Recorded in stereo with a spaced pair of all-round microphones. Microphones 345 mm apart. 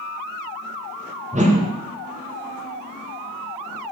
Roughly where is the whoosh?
Centre.